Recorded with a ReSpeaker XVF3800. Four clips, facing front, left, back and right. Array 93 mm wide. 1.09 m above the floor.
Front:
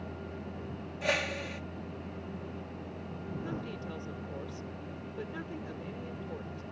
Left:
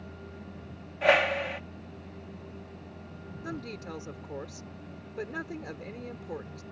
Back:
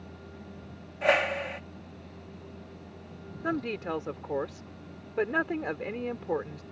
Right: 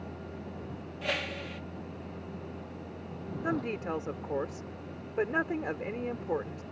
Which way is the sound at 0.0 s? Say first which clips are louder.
Right 3 dB, front 5 dB; 60° right.